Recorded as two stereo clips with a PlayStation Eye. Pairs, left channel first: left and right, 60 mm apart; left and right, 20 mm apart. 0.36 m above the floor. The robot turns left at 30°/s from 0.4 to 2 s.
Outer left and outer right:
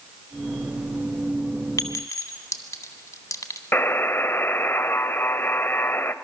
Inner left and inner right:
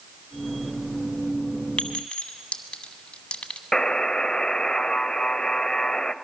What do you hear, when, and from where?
1.8 s a clink: 65° left (ahead or behind), 1.4 m; by 3.6 s 60° left (ahead or behind), 1.4 m
3.7 s a buzzer: 40° left (ahead or behind), 0.5 m